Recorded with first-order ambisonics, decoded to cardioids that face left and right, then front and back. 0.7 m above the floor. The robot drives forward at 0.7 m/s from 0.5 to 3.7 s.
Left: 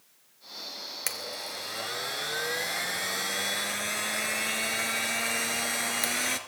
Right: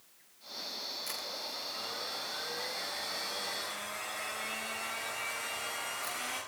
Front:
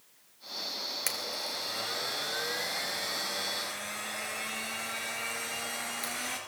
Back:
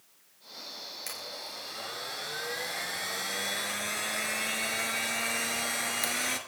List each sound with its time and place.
1.1 s a blender: 60° left, 2 m; by 6.4 s 115° left, 2.0 m